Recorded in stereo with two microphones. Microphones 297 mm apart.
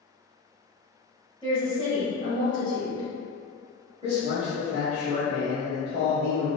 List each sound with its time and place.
1.4 s a woman speaking: 15° left (ahead or behind), 1.2 m
4.0 s a man speaking: 20° right (ahead or behind), 1.0 m